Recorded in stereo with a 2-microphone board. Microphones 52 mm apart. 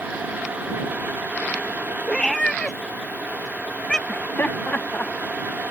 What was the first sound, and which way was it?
A cat meowing, 15° left (ahead or behind).